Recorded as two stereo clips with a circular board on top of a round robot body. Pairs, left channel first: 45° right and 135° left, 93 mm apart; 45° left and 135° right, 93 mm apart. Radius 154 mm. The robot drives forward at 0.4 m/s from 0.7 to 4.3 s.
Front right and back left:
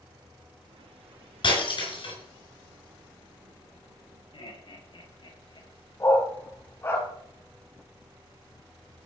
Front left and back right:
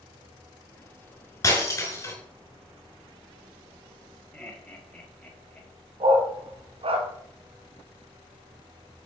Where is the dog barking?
110° right, 1.8 m.